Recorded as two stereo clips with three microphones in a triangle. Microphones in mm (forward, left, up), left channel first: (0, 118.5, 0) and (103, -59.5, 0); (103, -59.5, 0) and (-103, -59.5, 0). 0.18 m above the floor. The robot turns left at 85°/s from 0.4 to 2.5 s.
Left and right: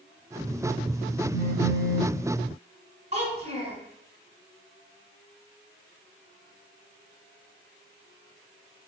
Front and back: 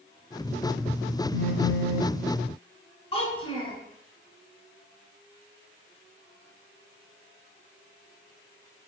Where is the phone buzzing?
170° right, 1.3 m; by 2.2 s 115° left, 1.3 m.